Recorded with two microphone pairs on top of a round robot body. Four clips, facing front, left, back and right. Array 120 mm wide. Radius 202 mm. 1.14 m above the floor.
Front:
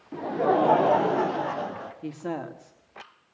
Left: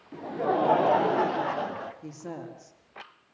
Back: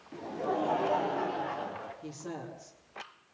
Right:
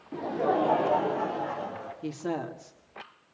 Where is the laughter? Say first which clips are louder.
Right 1 dB, front 10 dB; 35° right, 1.0 m; by 1.9 s 65° left, 2.0 m.